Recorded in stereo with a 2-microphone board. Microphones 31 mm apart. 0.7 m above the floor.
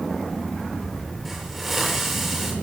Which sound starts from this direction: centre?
A hiss, at 1.2 s.